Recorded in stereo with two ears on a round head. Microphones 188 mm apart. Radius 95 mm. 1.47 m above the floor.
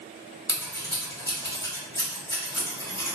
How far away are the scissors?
About 1.1 m.